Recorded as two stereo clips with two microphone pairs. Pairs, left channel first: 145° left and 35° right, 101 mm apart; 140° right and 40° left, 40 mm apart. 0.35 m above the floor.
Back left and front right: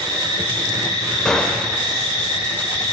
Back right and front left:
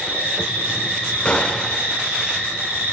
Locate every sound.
0.0 s an insect: 5° left, 3 m
1.2 s a gunshot: 140° right, 0.5 m